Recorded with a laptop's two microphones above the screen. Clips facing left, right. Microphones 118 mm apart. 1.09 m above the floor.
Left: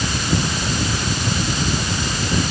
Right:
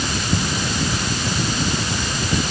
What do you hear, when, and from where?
Only background noise.